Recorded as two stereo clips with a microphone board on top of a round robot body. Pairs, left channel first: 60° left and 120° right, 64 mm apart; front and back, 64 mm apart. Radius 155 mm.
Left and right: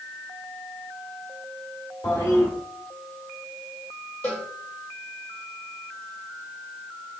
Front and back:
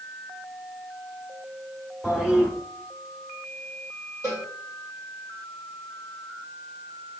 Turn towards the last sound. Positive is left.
turn(degrees=130)